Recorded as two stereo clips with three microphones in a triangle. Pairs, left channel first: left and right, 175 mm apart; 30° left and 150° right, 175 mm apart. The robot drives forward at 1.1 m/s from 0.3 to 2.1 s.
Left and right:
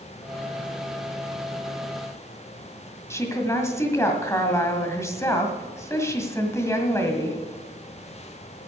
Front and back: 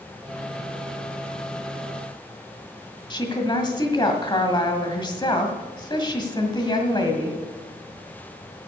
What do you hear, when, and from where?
3.1 s a woman speaking: 40° left, 1.6 m